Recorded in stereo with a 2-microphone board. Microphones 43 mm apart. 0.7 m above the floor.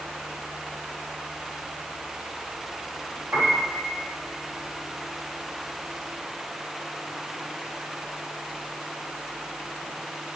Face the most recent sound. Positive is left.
turn(degrees=-85)